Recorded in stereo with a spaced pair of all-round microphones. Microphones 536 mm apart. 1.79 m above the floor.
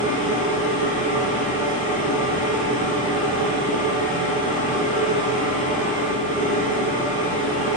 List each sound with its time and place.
0.0 s a machine running: 15° left (ahead or behind), 0.8 m